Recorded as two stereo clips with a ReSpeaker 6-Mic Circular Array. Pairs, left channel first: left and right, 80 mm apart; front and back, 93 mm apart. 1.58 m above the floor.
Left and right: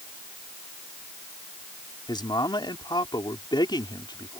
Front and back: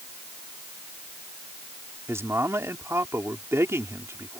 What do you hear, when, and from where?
2.1 s a man speaking: 120° left